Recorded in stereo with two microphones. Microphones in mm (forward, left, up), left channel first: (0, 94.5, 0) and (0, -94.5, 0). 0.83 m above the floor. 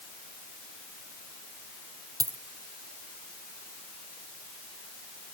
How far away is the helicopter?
I don't hear a helicopter.